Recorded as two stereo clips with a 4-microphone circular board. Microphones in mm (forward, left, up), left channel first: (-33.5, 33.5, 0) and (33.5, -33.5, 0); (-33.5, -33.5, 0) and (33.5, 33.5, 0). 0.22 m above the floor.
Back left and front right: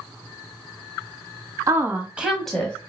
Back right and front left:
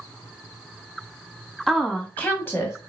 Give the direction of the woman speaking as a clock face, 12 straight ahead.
2 o'clock.